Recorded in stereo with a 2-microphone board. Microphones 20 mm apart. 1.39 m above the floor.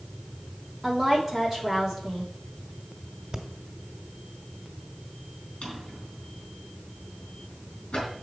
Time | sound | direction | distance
0.8 | a woman speaking | 10° right (ahead or behind) | 3 m
3.3 | breathing | 40° right (ahead or behind) | 1.4 m
5.6 | a drawer | 60° left (ahead or behind) | 4.5 m